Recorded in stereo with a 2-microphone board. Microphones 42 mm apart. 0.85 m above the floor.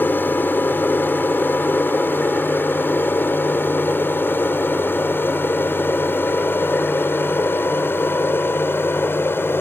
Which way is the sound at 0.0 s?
50° left (ahead or behind).